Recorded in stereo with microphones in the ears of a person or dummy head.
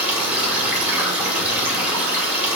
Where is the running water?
10° right (ahead or behind), 1.6 m.